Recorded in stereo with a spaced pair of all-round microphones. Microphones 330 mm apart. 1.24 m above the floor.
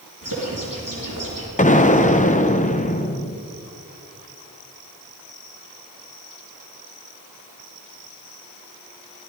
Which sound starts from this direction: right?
A bird, at 0.2 s.